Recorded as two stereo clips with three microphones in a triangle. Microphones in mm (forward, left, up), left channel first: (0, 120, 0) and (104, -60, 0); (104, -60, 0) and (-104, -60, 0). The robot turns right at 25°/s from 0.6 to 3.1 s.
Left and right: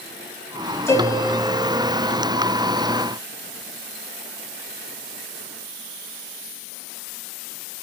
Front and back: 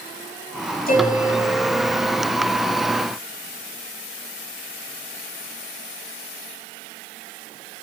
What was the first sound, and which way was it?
A piano, 40° left.